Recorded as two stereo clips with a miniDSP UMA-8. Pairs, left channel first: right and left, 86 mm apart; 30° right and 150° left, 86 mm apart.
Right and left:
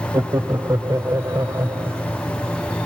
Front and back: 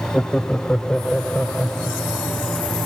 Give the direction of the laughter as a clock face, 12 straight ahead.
10 o'clock.